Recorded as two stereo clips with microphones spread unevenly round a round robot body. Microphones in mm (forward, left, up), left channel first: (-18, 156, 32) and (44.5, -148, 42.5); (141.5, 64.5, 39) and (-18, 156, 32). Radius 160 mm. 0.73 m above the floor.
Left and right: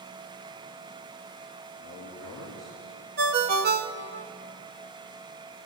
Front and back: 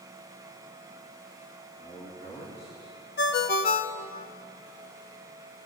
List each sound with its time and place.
1.8 s a man speaking: 170° left, 7 m
3.2 s a ringtone: 25° right, 0.7 m